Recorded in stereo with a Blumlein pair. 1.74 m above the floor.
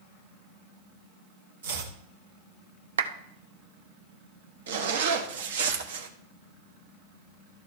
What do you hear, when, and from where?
1.6 s chopping: 65° right, 1.9 m
3.0 s a clap: 70° right, 0.8 m
4.7 s a zipper: 60° right, 1.3 m